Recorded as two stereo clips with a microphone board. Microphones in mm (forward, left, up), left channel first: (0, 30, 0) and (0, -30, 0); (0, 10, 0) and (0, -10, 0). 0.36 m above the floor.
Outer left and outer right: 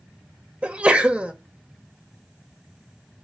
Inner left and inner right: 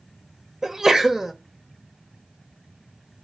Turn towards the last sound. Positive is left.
turn(degrees=-20)  # may be behind; listen again after turning